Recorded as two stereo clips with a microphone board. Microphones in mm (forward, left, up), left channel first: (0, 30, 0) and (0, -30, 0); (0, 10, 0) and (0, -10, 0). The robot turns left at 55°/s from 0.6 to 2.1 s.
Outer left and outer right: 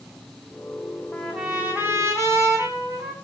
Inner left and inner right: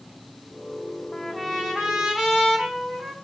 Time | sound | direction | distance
1.1 | a trumpet | 5° left | 4.5 m